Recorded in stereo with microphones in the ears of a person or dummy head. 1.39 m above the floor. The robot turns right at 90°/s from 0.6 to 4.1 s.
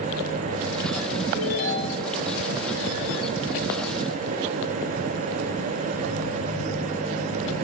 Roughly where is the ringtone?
Ahead left.